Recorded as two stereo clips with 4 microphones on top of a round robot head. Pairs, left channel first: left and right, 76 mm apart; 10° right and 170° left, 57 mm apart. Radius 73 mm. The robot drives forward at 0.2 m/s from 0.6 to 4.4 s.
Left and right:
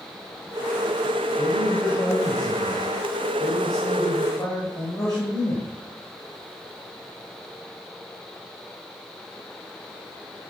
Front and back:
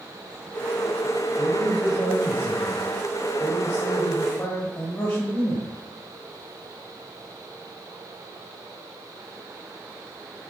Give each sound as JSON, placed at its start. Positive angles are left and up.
{"t": 1.4, "sound": "a man speaking", "azimuth_deg": 45, "distance_m": 3.5}